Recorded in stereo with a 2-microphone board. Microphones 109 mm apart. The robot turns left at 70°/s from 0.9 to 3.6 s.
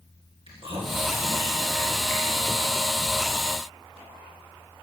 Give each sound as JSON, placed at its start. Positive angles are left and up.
{"t": 0.5, "sound": "chewing", "side_deg": -60, "distance_m": 3.0}